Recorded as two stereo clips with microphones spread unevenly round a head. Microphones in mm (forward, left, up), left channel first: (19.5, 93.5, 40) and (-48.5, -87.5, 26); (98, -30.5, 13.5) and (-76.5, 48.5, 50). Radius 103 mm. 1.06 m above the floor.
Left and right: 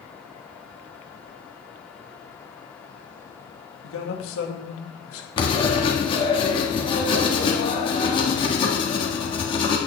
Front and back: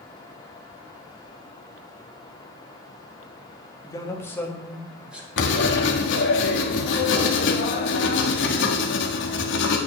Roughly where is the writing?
Ahead.